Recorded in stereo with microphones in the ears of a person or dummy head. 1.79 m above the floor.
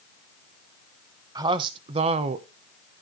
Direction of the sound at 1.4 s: 25° right (ahead or behind).